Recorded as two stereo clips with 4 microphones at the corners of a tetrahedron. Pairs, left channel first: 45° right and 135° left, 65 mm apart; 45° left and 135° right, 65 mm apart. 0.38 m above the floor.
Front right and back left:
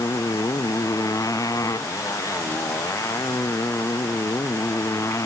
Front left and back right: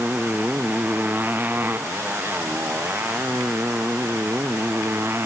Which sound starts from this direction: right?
A motorcycle, at 0.0 s.